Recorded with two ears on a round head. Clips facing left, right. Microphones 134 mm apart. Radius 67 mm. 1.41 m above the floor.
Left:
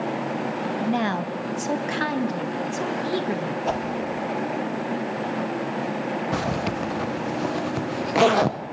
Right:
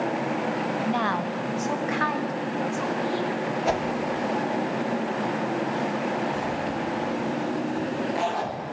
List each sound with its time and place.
0.8 s a woman speaking: 20° left (ahead or behind), 1.0 m; by 3.6 s 55° left (ahead or behind), 2.5 m
3.7 s a whoosh: 10° right (ahead or behind), 2 m
6.3 s a zipper: 85° left, 0.8 m